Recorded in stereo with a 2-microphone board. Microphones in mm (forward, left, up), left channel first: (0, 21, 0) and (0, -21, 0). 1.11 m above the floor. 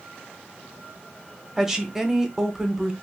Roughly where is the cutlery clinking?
No cutlery clinking in this recording.